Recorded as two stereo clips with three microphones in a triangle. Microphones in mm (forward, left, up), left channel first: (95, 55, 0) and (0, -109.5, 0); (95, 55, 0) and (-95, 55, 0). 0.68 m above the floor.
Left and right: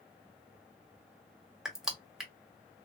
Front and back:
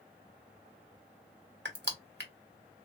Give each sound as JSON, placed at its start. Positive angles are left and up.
{"t": 1.6, "sound": "crushing", "azimuth_deg": 155, "distance_m": 0.9}